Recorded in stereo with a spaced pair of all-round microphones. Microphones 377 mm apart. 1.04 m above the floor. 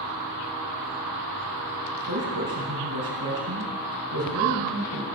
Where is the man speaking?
80° right, 5 m.